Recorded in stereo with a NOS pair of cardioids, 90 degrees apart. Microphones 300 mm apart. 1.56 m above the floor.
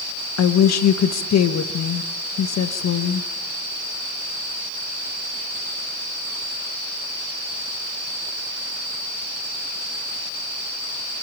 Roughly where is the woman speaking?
Ahead left.